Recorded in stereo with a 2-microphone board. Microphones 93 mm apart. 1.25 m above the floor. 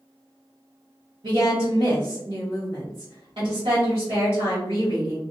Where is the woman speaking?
70° right (ahead or behind), 1.1 m.